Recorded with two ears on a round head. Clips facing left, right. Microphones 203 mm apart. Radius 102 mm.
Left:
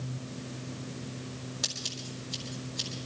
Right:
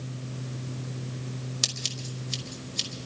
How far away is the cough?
No cough in this recording.